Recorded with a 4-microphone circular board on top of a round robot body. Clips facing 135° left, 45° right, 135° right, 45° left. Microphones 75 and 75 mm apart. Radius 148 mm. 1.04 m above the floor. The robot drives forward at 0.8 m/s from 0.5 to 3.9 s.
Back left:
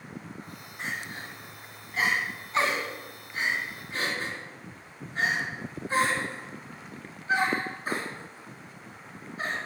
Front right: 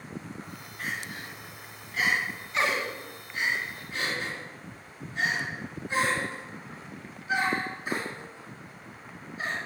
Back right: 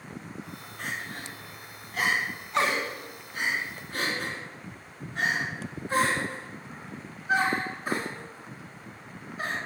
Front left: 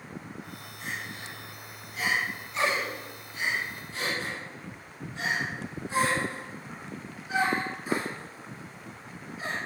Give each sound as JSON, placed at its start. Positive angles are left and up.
{"t": 0.8, "sound": "crying", "azimuth_deg": -160, "distance_m": 1.6}